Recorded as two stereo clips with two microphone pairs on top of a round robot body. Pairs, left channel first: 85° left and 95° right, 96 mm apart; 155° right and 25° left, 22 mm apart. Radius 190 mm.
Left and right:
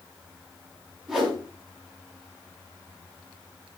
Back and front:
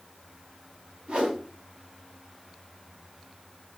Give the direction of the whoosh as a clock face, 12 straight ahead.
12 o'clock.